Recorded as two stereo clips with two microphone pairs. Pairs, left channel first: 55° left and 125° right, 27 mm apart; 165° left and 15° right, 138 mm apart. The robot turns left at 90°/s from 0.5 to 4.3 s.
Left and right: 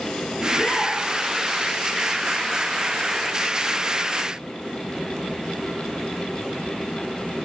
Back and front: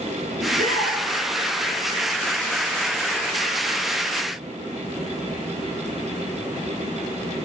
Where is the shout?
25° left, 5 m; by 1.0 s 15° right, 5 m.